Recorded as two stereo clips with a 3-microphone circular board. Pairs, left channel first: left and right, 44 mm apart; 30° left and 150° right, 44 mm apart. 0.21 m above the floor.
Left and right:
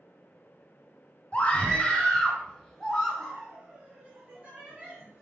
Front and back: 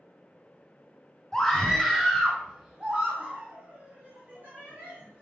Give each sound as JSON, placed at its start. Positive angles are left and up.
{"t": 1.3, "sound": "a scream", "azimuth_deg": 95, "distance_m": 1.3}